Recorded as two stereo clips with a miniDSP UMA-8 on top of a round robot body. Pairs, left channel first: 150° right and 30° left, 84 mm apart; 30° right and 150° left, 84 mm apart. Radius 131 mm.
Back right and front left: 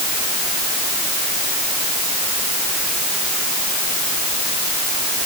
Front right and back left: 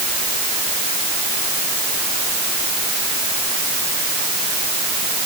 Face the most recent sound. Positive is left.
No sound to turn to.